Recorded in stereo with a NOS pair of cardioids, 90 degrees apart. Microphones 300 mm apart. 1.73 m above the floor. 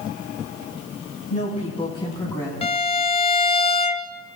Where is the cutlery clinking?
No cutlery clinking in this recording.